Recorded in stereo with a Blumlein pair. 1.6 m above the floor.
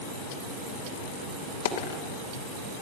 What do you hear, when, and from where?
1.6 s a dropped coin: 60° left, 3 m